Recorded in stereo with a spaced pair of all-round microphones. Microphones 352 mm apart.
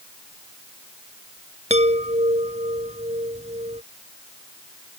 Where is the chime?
20° right (ahead or behind).